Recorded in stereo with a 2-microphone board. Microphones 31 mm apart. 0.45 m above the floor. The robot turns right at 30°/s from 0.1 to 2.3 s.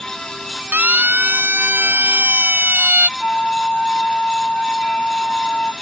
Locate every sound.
0.7 s a siren: 50° right (ahead or behind); by 3.1 s 70° right (ahead or behind)
3.2 s a flute: 30° left (ahead or behind)